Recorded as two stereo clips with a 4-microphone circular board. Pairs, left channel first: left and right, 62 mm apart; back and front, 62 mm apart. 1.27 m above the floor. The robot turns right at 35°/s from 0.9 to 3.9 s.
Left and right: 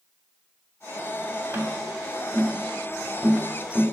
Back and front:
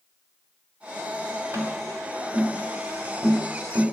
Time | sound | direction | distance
1.5 | tapping | 50° right | 2.5 m